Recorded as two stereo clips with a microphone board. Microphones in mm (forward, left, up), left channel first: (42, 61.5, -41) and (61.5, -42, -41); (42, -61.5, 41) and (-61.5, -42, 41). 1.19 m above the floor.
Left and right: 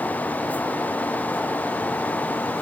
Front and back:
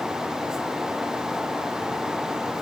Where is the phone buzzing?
No phone buzzing in this recording.